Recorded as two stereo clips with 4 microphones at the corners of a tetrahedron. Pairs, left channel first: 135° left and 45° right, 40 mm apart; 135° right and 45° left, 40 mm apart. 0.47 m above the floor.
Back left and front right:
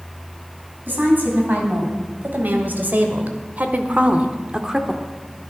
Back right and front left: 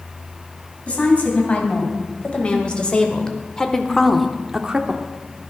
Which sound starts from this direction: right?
A woman speaking, at 0.9 s.